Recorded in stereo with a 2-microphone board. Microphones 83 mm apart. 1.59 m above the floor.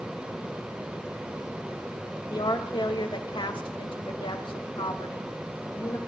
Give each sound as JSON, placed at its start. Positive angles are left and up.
{"t": 2.3, "sound": "a woman speaking", "side_deg": 70, "distance_m": 2.5}